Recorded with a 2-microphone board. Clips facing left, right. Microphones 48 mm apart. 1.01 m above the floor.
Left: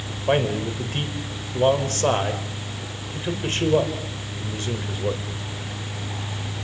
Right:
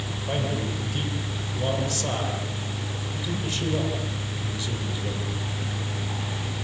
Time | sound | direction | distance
0.3 | a man speaking | 45° left (ahead or behind) | 3.5 m